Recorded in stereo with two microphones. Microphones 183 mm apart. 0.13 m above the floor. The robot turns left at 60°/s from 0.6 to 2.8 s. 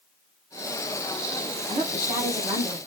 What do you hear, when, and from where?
1.7 s a woman speaking: 25° right (ahead or behind), 1.4 m; by 2.8 s 10° right (ahead or behind), 1.4 m